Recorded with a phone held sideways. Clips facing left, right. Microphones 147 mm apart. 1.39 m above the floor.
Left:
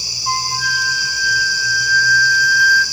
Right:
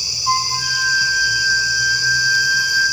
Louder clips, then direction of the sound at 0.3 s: Right 1 dB; 60° left (ahead or behind).